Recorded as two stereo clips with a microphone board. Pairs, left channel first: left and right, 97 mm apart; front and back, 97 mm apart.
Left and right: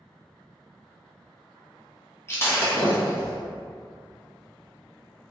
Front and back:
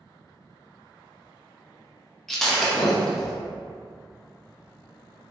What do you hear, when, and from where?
2.3 s breaking glass: 85° left, 0.6 m